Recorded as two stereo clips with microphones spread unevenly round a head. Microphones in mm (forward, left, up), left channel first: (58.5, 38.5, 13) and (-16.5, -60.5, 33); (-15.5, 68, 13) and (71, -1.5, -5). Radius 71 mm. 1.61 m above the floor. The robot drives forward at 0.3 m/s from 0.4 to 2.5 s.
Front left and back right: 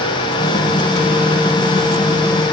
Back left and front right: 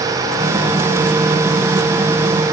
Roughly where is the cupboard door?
I don't hear a cupboard door.